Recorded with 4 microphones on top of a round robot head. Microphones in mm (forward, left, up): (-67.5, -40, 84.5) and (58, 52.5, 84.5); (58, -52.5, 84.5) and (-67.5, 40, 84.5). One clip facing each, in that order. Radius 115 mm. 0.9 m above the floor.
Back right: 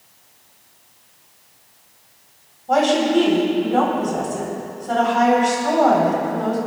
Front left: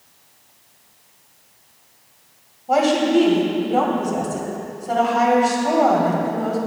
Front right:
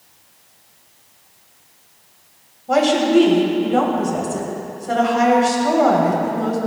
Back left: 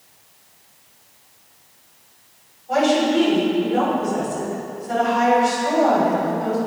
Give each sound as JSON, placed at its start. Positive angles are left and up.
{"t": 2.7, "sound": "a woman speaking", "azimuth_deg": -45, "distance_m": 3.5}